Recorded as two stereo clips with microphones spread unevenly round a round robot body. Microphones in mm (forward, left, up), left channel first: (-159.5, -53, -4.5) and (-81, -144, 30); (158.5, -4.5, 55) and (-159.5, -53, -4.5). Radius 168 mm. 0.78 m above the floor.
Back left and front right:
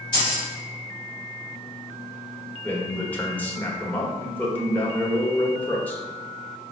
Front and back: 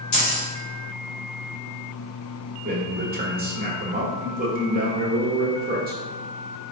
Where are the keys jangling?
50° left, 1.8 m.